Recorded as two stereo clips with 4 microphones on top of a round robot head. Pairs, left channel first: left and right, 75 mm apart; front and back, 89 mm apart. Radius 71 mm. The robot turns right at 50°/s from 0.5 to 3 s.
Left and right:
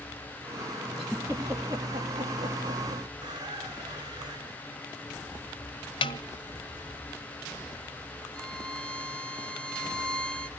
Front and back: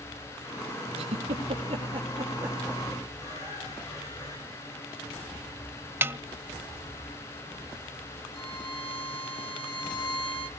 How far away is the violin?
About 3.5 m.